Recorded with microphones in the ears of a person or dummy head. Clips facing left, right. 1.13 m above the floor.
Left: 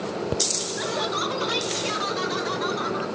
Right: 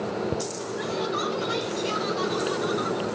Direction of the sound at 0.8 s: 65° left (ahead or behind).